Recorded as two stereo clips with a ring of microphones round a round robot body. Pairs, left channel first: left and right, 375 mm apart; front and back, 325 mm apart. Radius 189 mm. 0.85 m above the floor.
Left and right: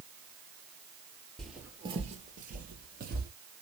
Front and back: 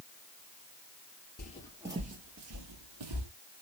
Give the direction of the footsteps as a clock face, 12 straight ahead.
12 o'clock.